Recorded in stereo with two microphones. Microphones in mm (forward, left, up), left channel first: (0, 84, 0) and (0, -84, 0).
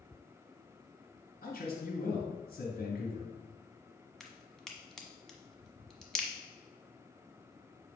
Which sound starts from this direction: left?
A man speaking, at 1.4 s.